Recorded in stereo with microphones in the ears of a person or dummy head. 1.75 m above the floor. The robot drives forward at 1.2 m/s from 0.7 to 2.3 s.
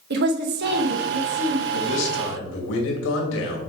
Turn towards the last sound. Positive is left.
turn(degrees=75)  # may be behind; listen again after turning